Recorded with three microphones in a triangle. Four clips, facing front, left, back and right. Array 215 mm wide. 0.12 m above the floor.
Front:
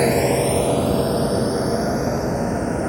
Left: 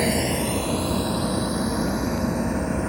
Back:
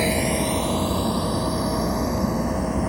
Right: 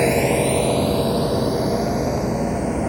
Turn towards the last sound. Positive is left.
turn(degrees=-45)